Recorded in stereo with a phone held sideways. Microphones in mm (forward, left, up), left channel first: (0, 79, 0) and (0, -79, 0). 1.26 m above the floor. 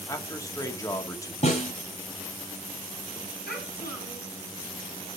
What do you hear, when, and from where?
0.1 s a man speaking: 20° left (ahead or behind), 2.5 m
1.4 s a snare drum: 50° left (ahead or behind), 8 m
3.5 s a child speaking: 85° left, 6 m